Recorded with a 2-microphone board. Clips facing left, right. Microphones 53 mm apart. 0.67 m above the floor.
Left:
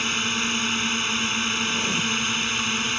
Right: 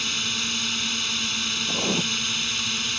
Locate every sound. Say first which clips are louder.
0.0 s a drone: left 4 dB; 30° left (ahead or behind)
1.7 s writing: left 1 dB; 40° right (ahead or behind)